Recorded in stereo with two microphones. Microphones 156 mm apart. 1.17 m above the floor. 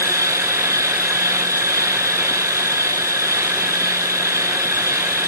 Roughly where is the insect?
Centre.